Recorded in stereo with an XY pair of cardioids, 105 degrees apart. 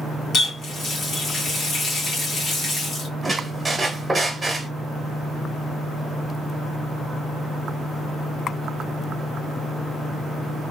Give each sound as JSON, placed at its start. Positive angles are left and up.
{"t": 0.3, "sound": "a running tap", "azimuth_deg": 60, "distance_m": 1.5}
{"t": 3.2, "sound": "a squeak", "azimuth_deg": -10, "distance_m": 1.4}